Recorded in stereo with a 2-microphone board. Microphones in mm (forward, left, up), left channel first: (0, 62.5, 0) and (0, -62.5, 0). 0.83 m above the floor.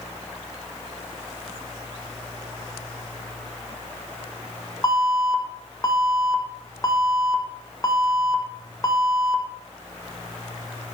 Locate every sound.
4.8 s an alarm: 25° left (ahead or behind), 1.8 m